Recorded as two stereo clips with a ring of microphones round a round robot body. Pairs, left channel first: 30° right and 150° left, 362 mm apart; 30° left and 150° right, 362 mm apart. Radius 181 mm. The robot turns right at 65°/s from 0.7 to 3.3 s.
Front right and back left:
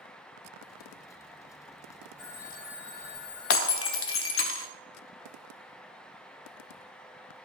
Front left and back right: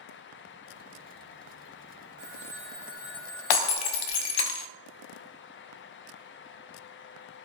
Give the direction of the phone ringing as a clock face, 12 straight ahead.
4 o'clock.